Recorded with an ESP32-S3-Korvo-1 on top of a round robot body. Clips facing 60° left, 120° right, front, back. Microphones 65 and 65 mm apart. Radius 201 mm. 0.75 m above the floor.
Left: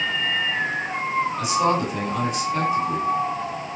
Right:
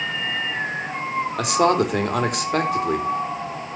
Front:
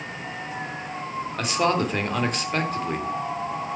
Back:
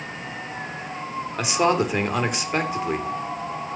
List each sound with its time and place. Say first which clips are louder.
1.4 s a man speaking: right 5 dB, back 2 dB; 100° right, 3 m